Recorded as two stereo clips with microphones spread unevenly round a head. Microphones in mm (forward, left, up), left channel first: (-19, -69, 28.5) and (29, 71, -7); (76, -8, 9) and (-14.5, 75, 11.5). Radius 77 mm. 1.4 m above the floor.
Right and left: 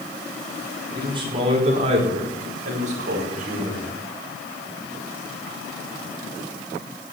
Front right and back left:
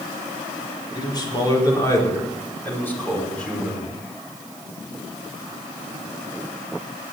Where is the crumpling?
No crumpling in this recording.